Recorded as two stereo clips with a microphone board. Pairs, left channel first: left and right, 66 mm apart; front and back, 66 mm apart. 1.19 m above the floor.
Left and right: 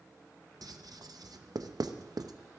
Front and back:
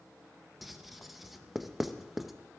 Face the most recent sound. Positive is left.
turn(degrees=-95)